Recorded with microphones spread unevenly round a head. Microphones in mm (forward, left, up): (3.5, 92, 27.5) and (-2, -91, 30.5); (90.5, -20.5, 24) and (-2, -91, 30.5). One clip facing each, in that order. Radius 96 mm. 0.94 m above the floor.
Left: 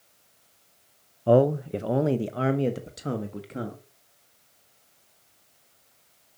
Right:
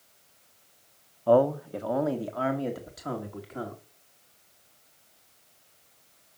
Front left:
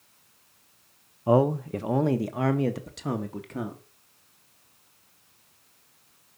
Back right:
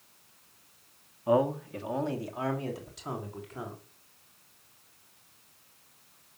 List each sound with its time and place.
1.3 s a man speaking: 50° left, 0.6 m; by 3.8 s 30° left, 1.8 m